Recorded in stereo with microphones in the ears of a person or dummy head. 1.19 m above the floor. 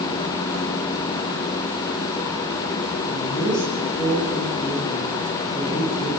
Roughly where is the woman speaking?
Left.